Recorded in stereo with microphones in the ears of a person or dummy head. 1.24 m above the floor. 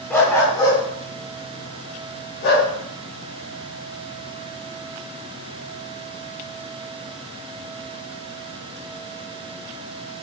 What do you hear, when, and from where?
0.1 s a dog barking: 5° left (ahead or behind), 1.4 m; by 2.7 s 50° left (ahead or behind), 2.5 m